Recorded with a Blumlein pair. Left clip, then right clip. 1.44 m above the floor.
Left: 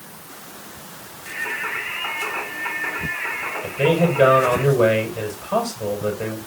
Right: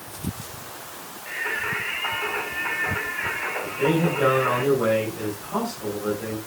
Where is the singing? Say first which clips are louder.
Left 1 dB; straight ahead, 5 m.